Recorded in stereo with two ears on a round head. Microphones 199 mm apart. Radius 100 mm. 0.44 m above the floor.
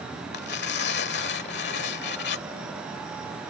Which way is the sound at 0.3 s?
50° left (ahead or behind).